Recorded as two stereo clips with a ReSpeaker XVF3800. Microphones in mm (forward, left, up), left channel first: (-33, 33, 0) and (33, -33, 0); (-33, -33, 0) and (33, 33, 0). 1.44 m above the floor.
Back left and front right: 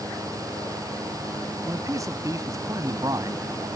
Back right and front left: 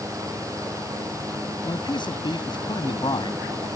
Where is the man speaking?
100° right.